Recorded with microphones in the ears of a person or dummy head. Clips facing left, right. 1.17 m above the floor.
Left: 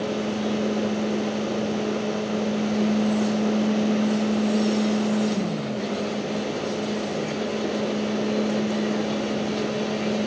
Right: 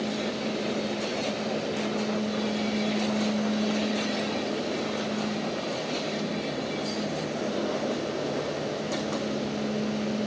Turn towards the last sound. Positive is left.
No sound to turn to.